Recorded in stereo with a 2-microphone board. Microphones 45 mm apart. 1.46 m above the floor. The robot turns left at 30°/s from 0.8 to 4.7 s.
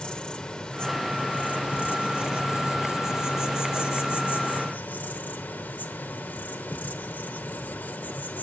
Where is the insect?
155° left, 2.5 m; by 8.4 s 40° left, 2.5 m.